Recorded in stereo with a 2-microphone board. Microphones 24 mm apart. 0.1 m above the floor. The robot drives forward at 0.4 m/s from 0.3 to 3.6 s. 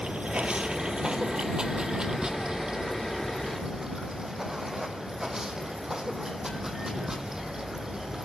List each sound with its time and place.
0.0 s running water: 50° right (ahead or behind), 1.0 m; by 8.2 s 20° right (ahead or behind), 2.0 m